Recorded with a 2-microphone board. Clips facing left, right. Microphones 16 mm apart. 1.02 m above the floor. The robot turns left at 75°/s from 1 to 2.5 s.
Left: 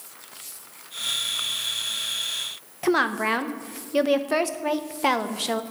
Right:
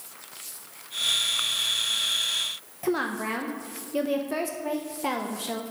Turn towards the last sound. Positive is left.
turn(degrees=40)  # may be behind; listen again after turning